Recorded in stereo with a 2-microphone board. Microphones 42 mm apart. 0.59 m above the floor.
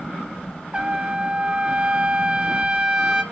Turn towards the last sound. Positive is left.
turn(degrees=-25)  # may be behind; listen again after turning